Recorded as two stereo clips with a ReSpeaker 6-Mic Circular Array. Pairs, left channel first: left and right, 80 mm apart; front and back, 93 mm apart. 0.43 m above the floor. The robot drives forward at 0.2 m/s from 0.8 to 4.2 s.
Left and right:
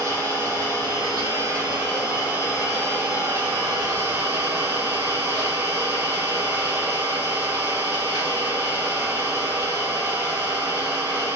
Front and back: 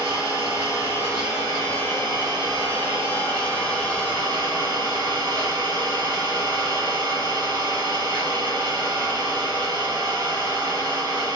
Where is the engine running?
50° right, 1.8 m; by 11.3 s 75° right, 1.5 m.